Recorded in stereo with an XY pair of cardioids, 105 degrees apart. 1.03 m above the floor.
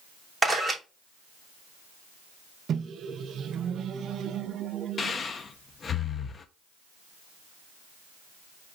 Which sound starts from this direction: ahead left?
Breathing, at 5.0 s.